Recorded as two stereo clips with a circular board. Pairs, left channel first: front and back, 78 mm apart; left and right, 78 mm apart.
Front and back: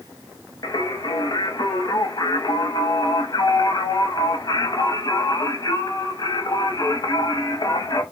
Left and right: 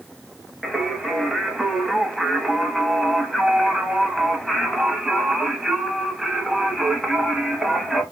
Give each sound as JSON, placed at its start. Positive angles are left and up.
{"t": 0.6, "sound": "singing", "azimuth_deg": -5, "distance_m": 0.7}